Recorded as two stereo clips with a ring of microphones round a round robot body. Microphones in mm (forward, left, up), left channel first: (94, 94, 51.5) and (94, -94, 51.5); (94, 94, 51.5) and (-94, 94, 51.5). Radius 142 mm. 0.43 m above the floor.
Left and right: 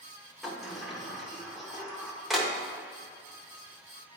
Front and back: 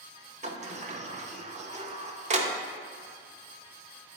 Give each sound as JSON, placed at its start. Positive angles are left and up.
{"t": 0.4, "sound": "a sliding door", "azimuth_deg": 180, "distance_m": 0.7}